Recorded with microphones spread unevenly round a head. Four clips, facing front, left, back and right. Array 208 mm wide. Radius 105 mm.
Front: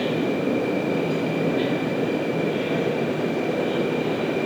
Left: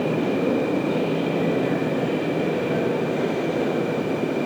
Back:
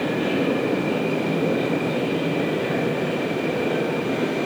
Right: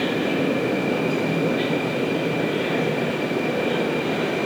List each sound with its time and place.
Only background noise.